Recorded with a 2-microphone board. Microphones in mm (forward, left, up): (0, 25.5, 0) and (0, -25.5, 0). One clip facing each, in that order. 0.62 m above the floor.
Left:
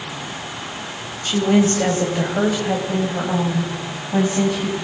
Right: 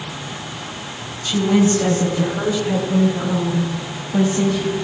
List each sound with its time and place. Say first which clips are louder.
1.2 s a woman speaking: even; 35° left (ahead or behind), 2.5 m; by 4.8 s 85° left, 4.5 m